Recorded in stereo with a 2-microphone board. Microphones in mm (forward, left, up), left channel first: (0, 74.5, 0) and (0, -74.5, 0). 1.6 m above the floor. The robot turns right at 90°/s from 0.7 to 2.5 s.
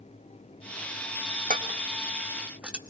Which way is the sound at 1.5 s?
65° right (ahead or behind).